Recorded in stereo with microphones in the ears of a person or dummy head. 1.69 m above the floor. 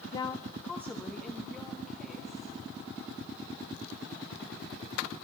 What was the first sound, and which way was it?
A woman speaking, 20° left (ahead or behind).